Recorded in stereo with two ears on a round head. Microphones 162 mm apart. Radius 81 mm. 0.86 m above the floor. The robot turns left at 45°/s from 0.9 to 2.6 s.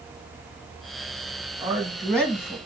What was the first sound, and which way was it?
A man speaking, 160° right.